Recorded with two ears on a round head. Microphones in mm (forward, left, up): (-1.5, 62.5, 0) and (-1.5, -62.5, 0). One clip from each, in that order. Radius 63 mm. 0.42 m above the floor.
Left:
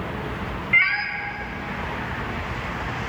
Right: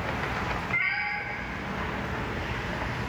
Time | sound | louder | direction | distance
0.7 | a cat meowing | left 10 dB | 65° left (ahead or behind) | 0.8 m